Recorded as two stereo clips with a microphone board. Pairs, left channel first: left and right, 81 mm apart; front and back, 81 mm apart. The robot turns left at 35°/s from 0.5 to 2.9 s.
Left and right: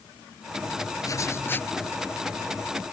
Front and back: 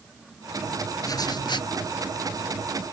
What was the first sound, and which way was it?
Writing, 45° left.